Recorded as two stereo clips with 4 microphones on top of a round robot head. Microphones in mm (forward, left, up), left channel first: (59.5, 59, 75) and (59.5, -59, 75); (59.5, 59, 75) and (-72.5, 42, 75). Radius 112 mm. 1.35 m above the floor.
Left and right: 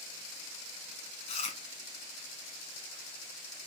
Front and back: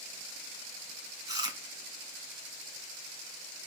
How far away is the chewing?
About 2.5 m.